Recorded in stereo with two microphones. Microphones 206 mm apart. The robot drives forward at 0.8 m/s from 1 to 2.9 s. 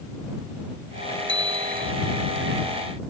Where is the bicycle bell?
65° left (ahead or behind).